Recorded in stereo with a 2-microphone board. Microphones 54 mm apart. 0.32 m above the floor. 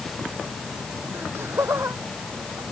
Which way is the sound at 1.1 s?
45° right (ahead or behind).